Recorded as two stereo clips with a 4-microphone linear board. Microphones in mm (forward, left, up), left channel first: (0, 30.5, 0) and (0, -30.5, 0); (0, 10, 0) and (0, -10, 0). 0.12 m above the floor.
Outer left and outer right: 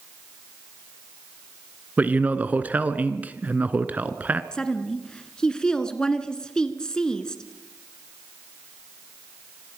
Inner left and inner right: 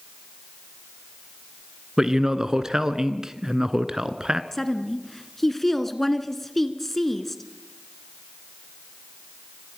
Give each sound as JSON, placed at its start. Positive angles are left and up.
{"t": 2.0, "sound": "a man speaking", "side_deg": -25, "distance_m": 1.1}
{"t": 4.5, "sound": "a woman speaking", "side_deg": 15, "distance_m": 1.3}